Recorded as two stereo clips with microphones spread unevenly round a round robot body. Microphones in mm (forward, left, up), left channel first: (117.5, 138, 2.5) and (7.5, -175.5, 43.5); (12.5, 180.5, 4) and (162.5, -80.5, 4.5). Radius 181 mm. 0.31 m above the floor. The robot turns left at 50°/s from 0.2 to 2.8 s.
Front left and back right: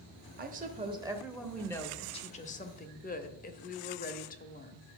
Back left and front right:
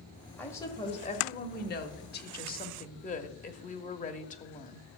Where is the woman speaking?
160° right, 0.9 m; by 4.9 s 80° left, 0.9 m.